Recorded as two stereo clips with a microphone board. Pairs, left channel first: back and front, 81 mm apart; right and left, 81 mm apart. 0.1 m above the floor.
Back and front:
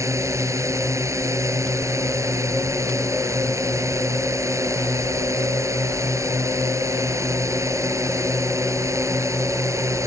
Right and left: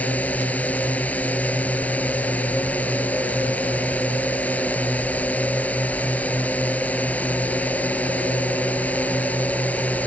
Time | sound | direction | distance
0.0 | a drone | 25° right | ?